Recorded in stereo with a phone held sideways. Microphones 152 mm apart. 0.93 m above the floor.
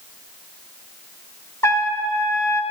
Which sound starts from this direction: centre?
A trumpet, at 1.6 s.